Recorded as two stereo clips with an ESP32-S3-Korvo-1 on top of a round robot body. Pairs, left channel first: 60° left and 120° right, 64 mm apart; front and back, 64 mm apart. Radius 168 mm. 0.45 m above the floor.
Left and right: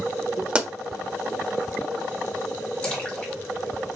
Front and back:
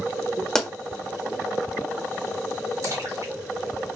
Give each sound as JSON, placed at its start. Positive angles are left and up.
{"t": 0.6, "sound": "a pop", "azimuth_deg": -75, "distance_m": 1.2}
{"t": 2.8, "sound": "a splash", "azimuth_deg": 135, "distance_m": 1.7}